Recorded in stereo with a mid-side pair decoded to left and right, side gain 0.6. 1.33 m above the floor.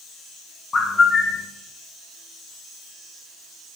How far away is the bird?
About 0.6 m.